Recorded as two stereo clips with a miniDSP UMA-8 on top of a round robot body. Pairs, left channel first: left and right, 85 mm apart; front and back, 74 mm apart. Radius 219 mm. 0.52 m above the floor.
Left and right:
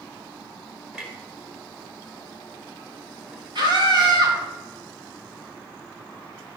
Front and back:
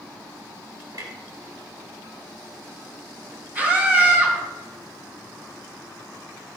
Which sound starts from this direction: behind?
A clunk, at 0.9 s.